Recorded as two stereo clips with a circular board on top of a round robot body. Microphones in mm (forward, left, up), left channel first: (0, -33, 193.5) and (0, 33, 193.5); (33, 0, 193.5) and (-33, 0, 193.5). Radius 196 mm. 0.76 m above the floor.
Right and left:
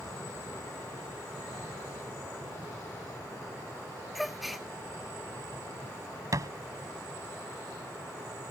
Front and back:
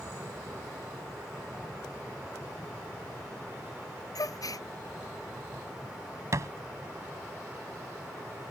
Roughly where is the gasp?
Ahead.